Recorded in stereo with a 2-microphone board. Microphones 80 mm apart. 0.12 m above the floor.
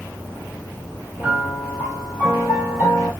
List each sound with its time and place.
1.2 s a piano: 20° right (ahead or behind), 3 m